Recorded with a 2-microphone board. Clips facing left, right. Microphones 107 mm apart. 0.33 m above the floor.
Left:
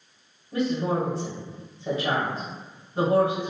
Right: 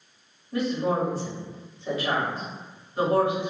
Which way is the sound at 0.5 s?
30° left (ahead or behind).